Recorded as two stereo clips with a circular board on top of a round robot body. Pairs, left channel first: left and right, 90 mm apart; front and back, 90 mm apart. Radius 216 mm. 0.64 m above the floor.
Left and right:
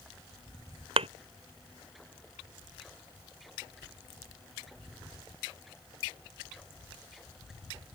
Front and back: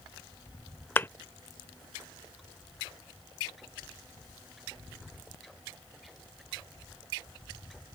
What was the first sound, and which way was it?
A thud, 70° right.